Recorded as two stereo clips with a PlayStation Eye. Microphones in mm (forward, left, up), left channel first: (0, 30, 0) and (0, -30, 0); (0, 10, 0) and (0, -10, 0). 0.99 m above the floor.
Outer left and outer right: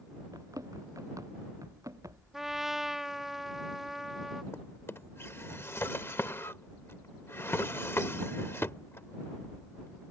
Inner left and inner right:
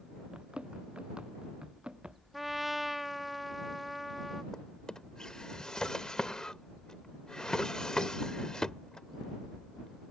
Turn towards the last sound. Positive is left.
turn(degrees=40)  # may be behind; listen again after turning